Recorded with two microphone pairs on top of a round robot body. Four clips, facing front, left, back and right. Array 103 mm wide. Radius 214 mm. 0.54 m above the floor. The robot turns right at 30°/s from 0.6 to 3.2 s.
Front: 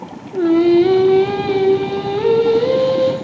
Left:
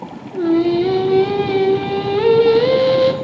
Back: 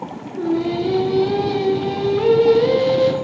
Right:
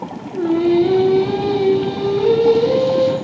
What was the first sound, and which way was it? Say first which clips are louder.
Singing: even, front 9 dB; 15° left.